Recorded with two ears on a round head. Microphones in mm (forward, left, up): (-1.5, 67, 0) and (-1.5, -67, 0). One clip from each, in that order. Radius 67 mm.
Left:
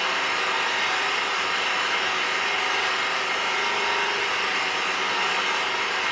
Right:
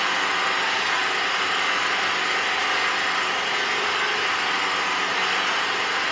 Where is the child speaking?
I don't hear a child speaking.